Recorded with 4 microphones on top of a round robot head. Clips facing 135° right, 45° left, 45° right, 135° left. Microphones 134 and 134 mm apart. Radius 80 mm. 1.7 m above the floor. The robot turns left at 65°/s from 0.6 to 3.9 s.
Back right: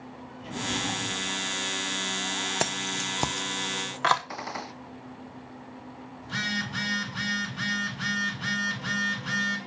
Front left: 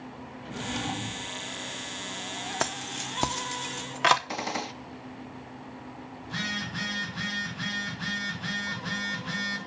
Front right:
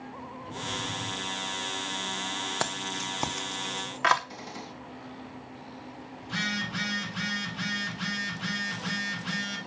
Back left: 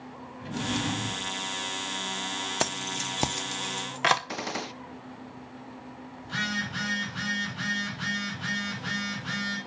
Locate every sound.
0.4 s a drawer: 140° left, 1.8 m; by 1.3 s 95° left, 1.8 m
2.6 s keys jangling: 170° right, 0.7 m; by 4.2 s 105° left, 0.7 m
4.3 s a gunshot: 110° left, 0.7 m
6.2 s a phone buzzing: 125° right, 6 m